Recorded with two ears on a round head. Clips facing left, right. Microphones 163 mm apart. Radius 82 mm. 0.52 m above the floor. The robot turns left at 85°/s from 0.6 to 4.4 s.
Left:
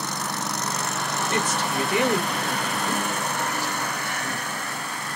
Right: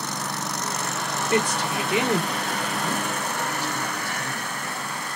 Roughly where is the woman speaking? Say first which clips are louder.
Right 4 dB; centre.